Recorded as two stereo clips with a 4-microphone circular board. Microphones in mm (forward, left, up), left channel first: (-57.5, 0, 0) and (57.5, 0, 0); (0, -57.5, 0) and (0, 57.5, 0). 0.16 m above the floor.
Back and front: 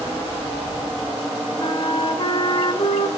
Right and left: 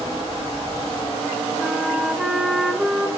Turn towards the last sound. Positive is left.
turn(degrees=170)